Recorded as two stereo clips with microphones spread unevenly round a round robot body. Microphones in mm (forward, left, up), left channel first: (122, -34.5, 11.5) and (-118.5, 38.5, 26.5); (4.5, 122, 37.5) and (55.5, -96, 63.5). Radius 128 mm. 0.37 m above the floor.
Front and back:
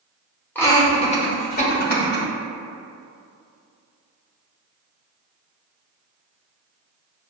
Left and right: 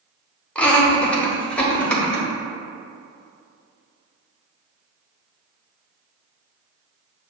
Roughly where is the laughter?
Ahead left.